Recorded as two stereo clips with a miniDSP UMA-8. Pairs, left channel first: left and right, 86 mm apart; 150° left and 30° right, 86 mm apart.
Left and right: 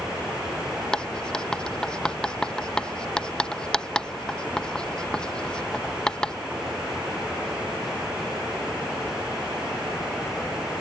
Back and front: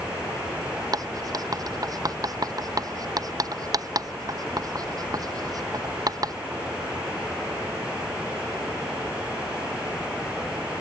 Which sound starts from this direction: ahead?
Writing, at 0.9 s.